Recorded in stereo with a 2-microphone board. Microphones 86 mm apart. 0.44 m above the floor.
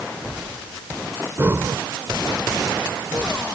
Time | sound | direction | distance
1.4 | breathing | 30° right (ahead or behind) | ?